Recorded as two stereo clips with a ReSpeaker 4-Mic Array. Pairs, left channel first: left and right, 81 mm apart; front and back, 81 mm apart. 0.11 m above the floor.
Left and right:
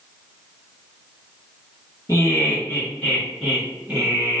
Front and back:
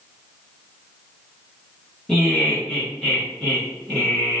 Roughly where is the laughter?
Left.